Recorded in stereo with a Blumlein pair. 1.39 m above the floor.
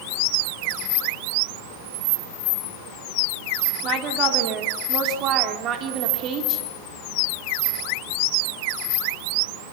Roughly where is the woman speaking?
Ahead right.